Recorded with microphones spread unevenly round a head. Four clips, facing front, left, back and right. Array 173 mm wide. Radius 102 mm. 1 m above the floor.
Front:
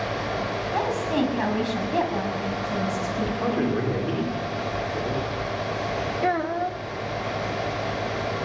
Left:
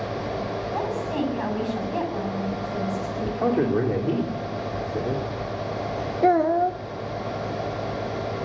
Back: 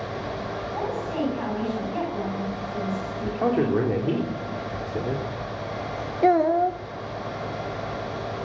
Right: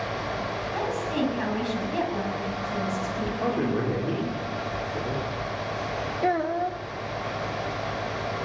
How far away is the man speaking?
About 3.5 m.